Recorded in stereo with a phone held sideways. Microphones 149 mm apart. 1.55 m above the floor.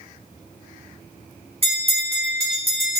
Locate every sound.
1.6 s a bell: 40° right (ahead or behind), 2.0 m